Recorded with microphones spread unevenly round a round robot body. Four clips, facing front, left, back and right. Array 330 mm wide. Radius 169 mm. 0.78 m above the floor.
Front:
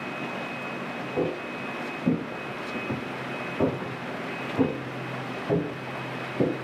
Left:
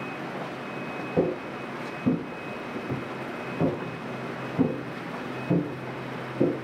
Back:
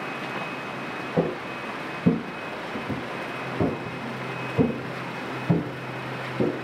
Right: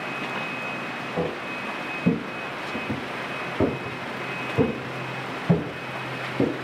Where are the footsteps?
120° left, 0.9 m; by 6.5 s 90° right, 3 m.